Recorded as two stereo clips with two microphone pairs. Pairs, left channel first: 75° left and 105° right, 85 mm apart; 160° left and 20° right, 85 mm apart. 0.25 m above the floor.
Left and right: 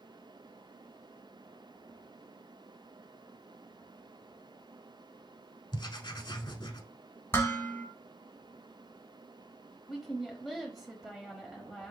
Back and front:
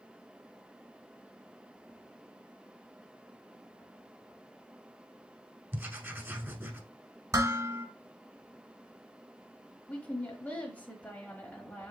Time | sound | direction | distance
5.7 | writing | 45° left | 0.7 m
7.3 | dishes clattering | 20° left | 1.4 m
9.9 | a woman speaking | 165° left | 0.9 m